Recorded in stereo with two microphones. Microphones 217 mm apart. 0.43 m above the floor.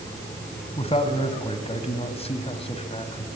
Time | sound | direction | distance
0.8 | a man speaking | 30° left (ahead or behind) | 2 m